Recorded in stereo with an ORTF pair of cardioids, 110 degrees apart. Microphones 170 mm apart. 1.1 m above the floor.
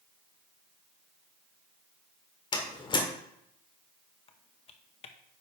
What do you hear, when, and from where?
2.5 s a door slam: 30° left, 2 m
4.3 s typing on a keyboard: 40° left, 1.1 m